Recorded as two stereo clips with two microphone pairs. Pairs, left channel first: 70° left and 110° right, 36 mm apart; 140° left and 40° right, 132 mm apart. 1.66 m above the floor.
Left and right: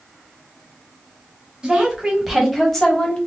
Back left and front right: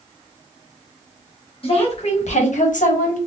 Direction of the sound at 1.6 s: 175° right.